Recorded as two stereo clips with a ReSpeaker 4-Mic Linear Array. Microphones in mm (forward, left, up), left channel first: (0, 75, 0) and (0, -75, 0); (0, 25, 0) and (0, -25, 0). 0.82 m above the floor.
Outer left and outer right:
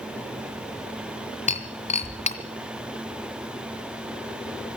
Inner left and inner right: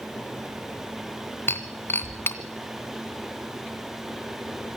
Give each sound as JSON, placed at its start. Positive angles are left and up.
{"t": 1.5, "sound": "breaking glass", "side_deg": 45, "distance_m": 2.0}